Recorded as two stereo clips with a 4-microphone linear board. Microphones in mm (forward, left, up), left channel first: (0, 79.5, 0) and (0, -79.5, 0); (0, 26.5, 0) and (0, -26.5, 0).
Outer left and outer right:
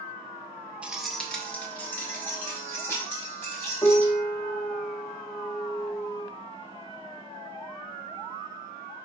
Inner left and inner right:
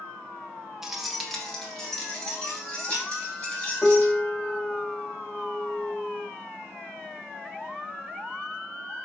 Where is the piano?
25° left (ahead or behind), 0.8 m.